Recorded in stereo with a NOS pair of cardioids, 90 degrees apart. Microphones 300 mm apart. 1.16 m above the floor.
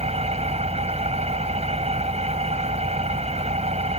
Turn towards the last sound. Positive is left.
turn(degrees=-20)